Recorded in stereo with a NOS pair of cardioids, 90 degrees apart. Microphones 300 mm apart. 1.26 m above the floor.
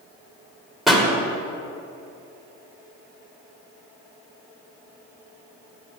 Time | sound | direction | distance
0.9 | a pop | straight ahead | 3 m